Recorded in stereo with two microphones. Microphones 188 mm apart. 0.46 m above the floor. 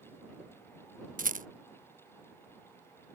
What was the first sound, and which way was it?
A rattle, 45° right (ahead or behind).